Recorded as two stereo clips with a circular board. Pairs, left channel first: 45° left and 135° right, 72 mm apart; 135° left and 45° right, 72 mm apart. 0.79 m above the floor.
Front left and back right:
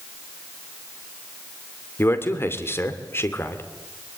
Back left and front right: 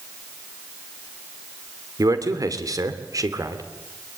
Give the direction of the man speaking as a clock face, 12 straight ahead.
12 o'clock.